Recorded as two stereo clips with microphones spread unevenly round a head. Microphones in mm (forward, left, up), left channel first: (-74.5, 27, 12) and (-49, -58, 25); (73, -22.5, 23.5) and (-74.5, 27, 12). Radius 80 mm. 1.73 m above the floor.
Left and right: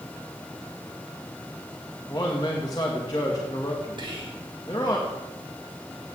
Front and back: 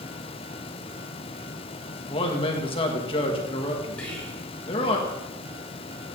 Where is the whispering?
100° right, 5 m.